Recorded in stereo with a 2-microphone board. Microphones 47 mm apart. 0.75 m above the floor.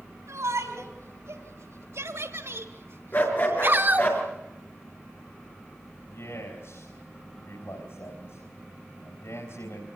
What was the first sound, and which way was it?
A shout, 85° right.